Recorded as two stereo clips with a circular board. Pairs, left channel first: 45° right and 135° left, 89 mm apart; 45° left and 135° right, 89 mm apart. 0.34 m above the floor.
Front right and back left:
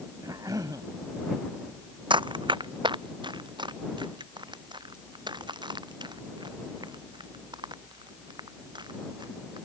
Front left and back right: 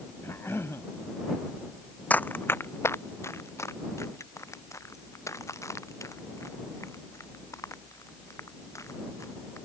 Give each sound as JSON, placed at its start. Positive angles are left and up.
{"t": 0.2, "sound": "a cough", "azimuth_deg": 100}
{"t": 2.1, "sound": "running footsteps", "azimuth_deg": 115}